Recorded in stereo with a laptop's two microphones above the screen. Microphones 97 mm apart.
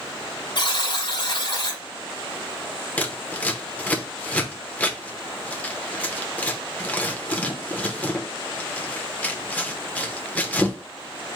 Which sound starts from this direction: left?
A buzzer, at 0.6 s.